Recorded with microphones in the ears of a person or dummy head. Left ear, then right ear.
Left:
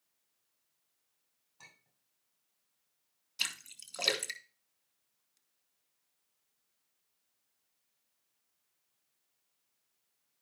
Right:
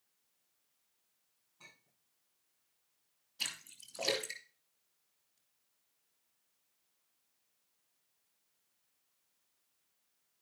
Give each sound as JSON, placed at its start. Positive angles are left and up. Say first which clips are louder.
{"t": 1.6, "sound": "a clink", "louder": "left 1 dB", "side_deg": 85, "distance_m": 6.5}
{"t": 3.4, "sound": "a splash", "louder": "left 4 dB", "side_deg": 70, "distance_m": 3.0}